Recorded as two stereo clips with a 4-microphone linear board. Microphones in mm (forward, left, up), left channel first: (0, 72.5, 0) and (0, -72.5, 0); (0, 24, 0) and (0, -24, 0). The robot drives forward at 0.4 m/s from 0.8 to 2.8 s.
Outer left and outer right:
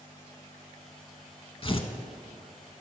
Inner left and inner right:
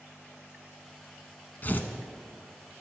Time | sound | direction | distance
1.6 | tearing paper | 40° left (ahead or behind) | 0.5 m